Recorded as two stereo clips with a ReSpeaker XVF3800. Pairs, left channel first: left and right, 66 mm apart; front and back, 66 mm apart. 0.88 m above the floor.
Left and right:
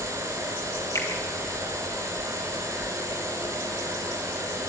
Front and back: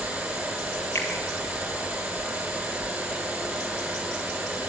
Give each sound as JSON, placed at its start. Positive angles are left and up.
{"t": 0.9, "sound": "a finger snap", "azimuth_deg": 55, "distance_m": 4.5}